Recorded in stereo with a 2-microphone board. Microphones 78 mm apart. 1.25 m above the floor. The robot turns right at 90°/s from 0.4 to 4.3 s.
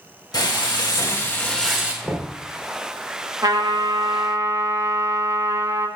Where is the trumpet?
125° right, 1.7 m; by 5.9 s 45° right, 1.7 m.